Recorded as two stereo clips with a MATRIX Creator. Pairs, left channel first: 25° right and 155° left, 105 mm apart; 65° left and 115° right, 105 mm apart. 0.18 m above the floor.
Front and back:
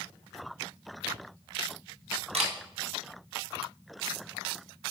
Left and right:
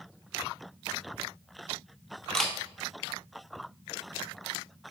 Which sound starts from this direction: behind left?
A camera shutter, at 2.3 s.